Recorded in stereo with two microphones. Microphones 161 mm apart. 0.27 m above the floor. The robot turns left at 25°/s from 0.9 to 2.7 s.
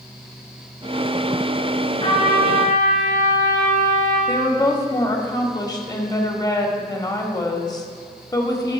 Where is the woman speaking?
25° left (ahead or behind), 1.0 m.